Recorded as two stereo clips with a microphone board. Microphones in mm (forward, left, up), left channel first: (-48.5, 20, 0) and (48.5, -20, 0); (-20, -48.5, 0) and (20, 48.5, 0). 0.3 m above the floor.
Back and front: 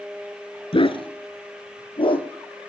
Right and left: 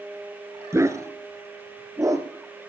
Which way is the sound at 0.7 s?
130° left.